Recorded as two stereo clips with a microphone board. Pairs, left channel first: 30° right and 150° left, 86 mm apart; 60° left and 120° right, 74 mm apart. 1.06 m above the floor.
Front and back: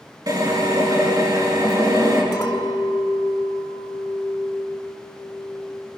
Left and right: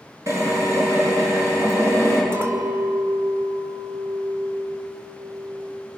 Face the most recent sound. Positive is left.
turn(degrees=-65)